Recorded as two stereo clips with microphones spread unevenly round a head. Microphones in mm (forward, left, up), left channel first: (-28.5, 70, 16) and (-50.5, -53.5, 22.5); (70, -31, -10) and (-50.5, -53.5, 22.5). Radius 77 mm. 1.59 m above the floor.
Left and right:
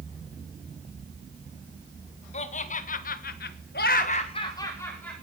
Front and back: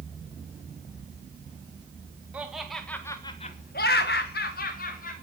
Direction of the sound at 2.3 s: 110° left.